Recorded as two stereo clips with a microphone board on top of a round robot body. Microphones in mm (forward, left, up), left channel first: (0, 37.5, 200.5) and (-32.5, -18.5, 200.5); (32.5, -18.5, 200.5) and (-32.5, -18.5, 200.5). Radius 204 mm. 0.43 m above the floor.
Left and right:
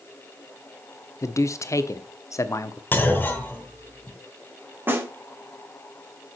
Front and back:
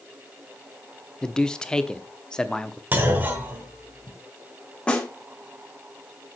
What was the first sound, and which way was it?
A man speaking, 75° left.